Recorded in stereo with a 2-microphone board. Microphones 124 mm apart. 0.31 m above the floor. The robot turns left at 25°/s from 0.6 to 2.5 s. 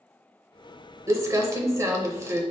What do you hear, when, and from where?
1.1 s crumpling: 25° right (ahead or behind), 0.8 m